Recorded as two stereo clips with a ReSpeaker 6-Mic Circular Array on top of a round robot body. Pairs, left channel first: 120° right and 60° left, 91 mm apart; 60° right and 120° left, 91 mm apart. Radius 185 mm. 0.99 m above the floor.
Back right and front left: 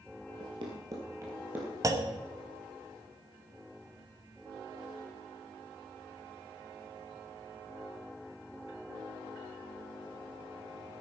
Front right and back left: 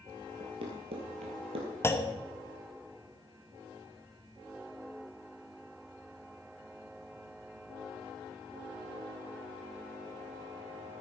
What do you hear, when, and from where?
0.4 s running footsteps: 90° left, 1.6 m; by 1.7 s 135° left, 2.0 m
1.8 s a clunk: 5° left, 1.1 m